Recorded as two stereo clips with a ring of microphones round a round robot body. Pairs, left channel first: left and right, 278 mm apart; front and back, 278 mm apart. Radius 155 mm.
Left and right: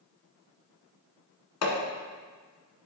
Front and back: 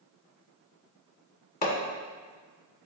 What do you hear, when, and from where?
1.6 s hammering: 55° left, 1.6 m